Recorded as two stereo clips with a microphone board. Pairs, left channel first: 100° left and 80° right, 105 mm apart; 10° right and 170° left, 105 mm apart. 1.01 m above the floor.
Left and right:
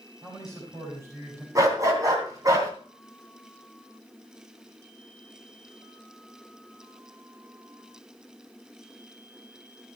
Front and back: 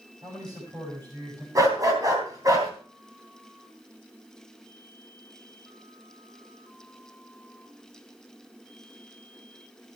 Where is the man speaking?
140° right, 7 m.